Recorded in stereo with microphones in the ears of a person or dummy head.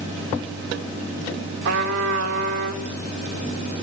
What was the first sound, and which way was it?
A trumpet, 70° right (ahead or behind).